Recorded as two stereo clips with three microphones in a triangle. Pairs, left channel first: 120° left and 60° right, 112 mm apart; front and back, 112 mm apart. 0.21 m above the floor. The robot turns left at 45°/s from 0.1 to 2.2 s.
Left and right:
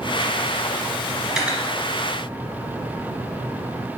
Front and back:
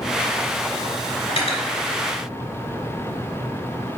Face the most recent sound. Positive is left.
turn(degrees=-10)